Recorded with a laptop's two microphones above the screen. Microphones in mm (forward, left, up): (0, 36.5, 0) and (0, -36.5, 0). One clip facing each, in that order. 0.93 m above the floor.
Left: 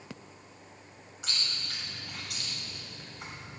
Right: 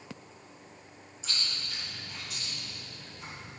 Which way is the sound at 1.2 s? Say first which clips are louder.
Even; 85° left.